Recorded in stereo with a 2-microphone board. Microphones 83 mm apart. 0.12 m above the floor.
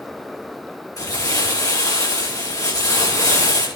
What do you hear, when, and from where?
1.0 s crumpling: 45° left (ahead or behind), 6.5 m